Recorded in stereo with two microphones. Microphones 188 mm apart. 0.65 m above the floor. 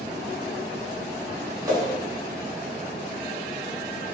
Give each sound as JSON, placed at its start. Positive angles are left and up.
{"t": 1.6, "sound": "a whoosh", "side_deg": -20, "distance_m": 2.5}